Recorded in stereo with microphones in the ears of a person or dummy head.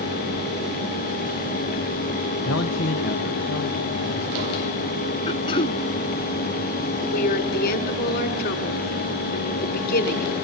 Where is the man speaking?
75° left (ahead or behind), 1.1 m; by 5.2 s 45° left (ahead or behind), 3 m.